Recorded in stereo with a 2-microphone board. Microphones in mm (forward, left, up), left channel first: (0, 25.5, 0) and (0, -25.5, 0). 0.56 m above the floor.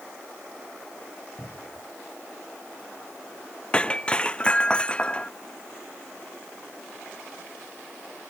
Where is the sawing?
I don't hear sawing.